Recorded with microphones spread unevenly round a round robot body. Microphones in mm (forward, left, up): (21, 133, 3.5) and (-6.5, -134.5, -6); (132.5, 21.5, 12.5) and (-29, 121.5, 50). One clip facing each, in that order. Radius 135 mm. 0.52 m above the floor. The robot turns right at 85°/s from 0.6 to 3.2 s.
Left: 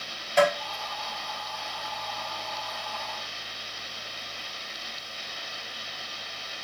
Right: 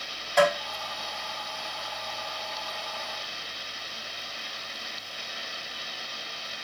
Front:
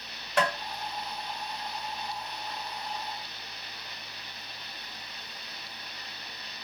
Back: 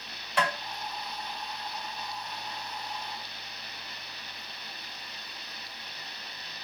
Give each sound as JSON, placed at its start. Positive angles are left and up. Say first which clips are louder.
{"t": 0.4, "sound": "tapping", "louder": "even, front 2 dB", "azimuth_deg": -5, "distance_m": 2.0}